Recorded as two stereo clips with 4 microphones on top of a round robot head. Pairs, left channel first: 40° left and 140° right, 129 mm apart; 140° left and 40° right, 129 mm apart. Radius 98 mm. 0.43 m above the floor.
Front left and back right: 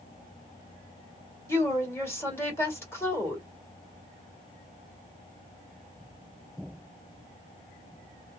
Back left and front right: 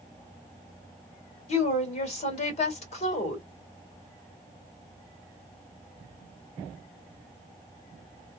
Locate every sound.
1.5 s a woman speaking: 110° left, 2.0 m